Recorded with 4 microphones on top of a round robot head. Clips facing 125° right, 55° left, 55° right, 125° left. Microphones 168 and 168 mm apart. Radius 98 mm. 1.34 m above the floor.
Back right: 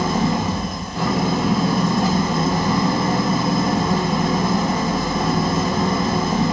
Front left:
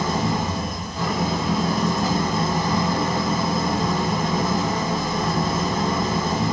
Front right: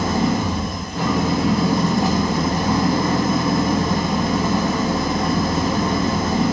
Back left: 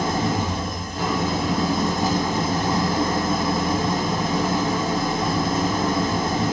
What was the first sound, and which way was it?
An engine running, 90° right.